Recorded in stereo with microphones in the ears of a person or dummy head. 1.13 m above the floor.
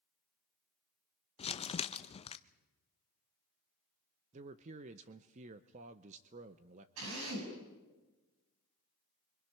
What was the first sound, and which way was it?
Crumpling, 25° left (ahead or behind).